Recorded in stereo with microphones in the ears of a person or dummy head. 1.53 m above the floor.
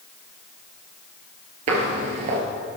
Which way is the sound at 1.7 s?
40° right (ahead or behind).